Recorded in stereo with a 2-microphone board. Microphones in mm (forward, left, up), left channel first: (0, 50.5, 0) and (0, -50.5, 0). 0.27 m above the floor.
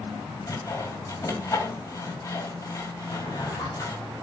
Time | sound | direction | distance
0.5 | sawing | 35° left (ahead or behind) | 1.8 m
3.1 | a drawer | 40° left (ahead or behind) | 4 m